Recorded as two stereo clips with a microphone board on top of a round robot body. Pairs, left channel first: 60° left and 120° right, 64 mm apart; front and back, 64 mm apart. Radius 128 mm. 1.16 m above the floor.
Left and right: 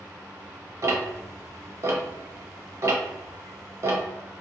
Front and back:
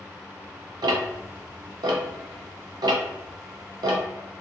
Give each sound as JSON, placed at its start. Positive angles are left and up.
{"t": 0.8, "sound": "ticking", "azimuth_deg": -165, "distance_m": 0.6}